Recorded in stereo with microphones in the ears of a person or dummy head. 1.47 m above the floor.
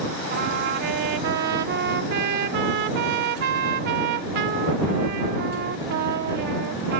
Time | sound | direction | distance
0.3 | a trumpet | 55° right (ahead or behind) | ?